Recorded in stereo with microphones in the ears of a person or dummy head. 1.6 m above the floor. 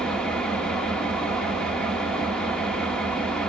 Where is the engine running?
Centre (ahead or behind), 1.6 m.